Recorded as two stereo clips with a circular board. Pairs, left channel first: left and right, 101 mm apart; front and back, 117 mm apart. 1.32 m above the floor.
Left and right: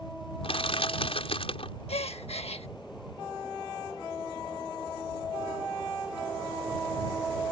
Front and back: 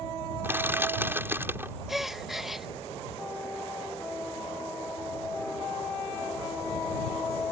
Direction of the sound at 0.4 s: 110° left.